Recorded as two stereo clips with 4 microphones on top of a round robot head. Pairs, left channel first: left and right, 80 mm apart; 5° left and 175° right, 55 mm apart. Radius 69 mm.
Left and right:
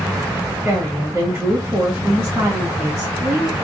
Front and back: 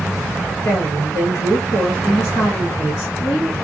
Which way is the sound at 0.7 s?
35° right.